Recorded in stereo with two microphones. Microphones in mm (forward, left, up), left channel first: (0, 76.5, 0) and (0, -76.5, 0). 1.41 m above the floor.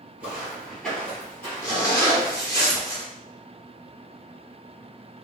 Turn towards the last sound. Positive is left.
turn(degrees=20)  # may be behind; listen again after turning